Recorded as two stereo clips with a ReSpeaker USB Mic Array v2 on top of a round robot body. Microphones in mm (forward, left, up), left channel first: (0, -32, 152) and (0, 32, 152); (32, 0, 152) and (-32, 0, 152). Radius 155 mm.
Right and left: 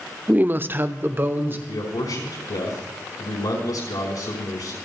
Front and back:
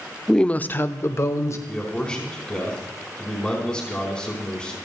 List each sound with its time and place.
0.3 s a woman speaking: 80° left, 0.9 m; by 1.6 s 35° left, 2 m
1.7 s a man speaking: 75° right, 4.5 m